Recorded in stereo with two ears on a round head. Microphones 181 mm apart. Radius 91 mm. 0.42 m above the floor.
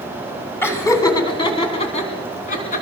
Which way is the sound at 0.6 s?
10° left (ahead or behind).